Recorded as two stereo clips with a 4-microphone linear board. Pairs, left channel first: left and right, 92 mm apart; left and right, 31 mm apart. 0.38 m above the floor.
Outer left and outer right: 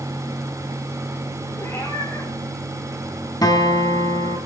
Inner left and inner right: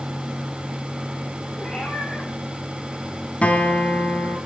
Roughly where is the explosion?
I don't hear an explosion.